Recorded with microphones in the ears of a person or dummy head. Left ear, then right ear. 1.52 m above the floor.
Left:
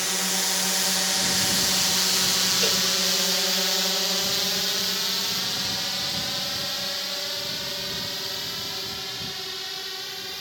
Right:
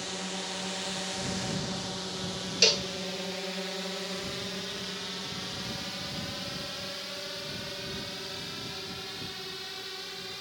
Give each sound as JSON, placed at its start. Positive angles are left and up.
{"t": 0.0, "sound": "a drone", "side_deg": 50}
{"t": 2.6, "sound": "a cowbell", "side_deg": -20}